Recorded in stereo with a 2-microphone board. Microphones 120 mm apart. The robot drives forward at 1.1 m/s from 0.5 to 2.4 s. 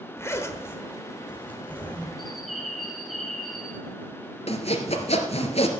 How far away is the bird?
About 2.5 m.